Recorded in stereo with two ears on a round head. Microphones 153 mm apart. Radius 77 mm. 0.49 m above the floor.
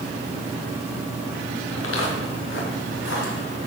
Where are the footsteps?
85° left, 4.5 m; by 3.6 s 75° left (ahead or behind), 6.5 m.